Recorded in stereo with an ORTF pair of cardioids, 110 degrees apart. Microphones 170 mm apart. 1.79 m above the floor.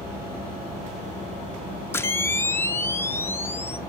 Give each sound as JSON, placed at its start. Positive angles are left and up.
{"t": 1.9, "sound": "a camera shutter", "azimuth_deg": 15, "distance_m": 0.5}